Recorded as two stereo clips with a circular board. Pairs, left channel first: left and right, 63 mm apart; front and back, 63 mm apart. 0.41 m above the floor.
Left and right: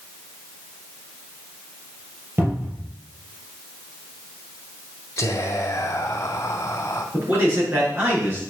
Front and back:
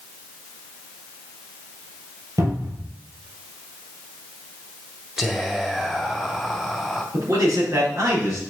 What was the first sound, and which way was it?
A cupboard door, 150° right.